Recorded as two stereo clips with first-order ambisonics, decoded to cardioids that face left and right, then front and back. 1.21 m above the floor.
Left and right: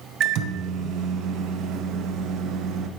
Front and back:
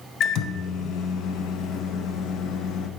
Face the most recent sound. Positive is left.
turn(degrees=-45)